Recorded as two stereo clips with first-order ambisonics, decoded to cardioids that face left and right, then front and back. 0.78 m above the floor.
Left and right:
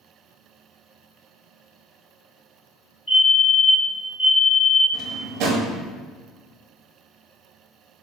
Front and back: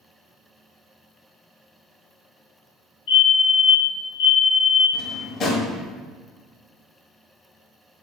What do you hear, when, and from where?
3.1 s a fire alarm: 5° left, 1.7 m
4.9 s a drawer: 55° right, 1.1 m